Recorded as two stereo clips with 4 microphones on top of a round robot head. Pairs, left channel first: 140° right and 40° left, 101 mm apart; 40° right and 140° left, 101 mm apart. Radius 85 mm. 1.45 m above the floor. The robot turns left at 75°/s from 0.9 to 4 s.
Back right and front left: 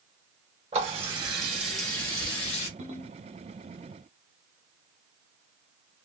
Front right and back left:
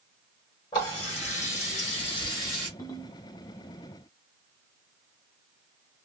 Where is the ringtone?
30° left, 1.0 m; by 3.2 s straight ahead, 1.0 m.